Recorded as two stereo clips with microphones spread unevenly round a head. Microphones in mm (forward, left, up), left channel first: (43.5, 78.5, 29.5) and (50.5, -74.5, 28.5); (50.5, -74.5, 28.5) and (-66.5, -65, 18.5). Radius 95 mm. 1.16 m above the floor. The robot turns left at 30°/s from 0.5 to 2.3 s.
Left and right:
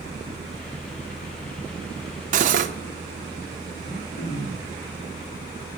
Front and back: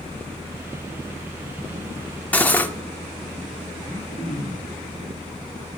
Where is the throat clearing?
55° left, 3 m.